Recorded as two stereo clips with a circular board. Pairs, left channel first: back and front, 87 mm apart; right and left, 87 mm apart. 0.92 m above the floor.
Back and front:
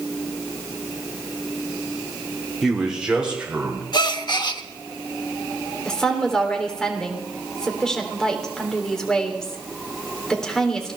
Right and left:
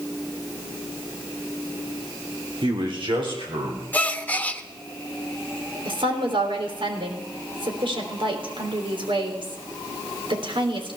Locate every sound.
2.6 s a man speaking: 85° left, 2.5 m; by 3.8 s 75° left, 4 m
3.9 s a gasp: 160° right, 0.8 m
5.8 s a woman speaking: 95° left, 3 m